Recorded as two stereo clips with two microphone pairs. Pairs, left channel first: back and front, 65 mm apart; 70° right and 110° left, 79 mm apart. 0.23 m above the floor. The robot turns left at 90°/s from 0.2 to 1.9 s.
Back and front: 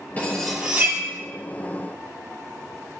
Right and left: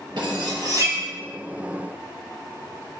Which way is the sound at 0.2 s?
120° left.